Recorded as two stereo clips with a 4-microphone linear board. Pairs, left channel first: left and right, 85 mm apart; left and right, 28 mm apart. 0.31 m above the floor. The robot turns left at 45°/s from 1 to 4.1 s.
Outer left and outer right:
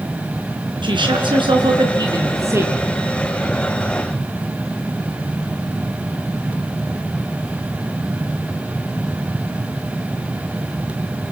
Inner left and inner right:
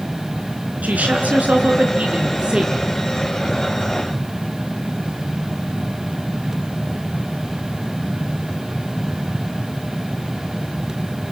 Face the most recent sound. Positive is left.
turn(degrees=145)